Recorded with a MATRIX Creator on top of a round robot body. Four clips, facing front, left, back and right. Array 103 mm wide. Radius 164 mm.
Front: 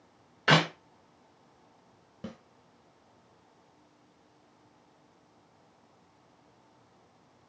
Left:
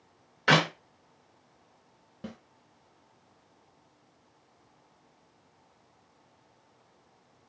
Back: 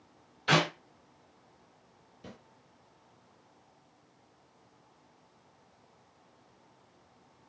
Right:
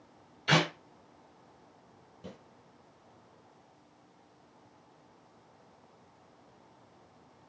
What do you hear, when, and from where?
0.5 s a clap: 50° left, 2.5 m
2.2 s a snare drum: 30° left, 3 m